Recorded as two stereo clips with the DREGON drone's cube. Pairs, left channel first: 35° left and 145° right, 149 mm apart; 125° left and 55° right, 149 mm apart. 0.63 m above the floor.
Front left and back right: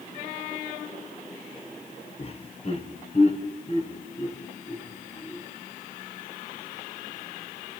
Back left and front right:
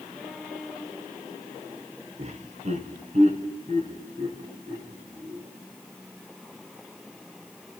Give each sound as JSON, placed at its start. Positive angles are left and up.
{"t": 2.2, "sound": "laughter", "azimuth_deg": -15, "distance_m": 1.9}